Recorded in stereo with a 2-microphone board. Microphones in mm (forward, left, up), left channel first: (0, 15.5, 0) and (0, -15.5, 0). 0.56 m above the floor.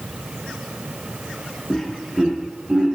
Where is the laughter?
20° left (ahead or behind), 0.7 m; by 3.0 s 50° right (ahead or behind), 1.4 m.